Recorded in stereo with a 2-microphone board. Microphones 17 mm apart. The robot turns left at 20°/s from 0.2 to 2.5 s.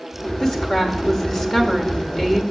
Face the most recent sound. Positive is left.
turn(degrees=20)